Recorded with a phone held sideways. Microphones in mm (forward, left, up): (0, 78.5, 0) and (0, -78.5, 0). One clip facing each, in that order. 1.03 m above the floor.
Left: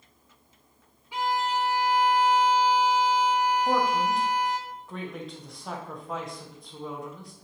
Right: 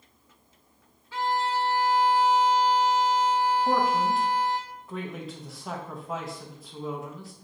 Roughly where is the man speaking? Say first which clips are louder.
Even; centre.